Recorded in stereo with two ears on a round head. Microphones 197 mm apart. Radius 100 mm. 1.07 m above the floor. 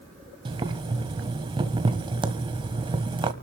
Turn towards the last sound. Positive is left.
turn(degrees=-25)  # may be behind; listen again after turning